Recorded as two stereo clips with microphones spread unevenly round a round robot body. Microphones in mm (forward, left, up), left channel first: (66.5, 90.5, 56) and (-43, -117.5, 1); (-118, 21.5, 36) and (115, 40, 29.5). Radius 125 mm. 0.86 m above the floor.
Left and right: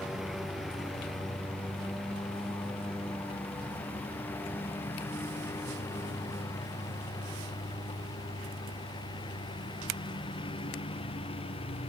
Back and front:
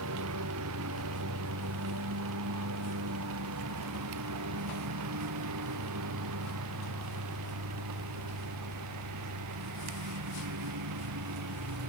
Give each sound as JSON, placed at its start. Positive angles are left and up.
{"t": 0.0, "sound": "a lawn mower", "azimuth_deg": -30}